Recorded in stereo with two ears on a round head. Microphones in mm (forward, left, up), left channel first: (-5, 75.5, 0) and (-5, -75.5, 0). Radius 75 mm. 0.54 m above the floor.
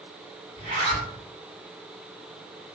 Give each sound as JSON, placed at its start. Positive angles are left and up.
{"t": 0.6, "sound": "a zipper", "side_deg": -35, "distance_m": 1.6}